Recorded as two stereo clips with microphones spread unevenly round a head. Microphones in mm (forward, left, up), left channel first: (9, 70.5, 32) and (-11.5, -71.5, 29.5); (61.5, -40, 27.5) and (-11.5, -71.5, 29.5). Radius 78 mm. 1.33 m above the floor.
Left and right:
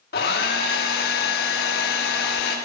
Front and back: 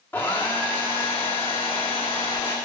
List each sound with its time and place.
0.1 s a hair dryer: 100° left, 1.3 m